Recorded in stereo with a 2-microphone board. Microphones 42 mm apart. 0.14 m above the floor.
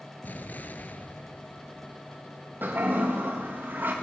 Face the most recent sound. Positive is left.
turn(degrees=-45)  # may be behind; listen again after turning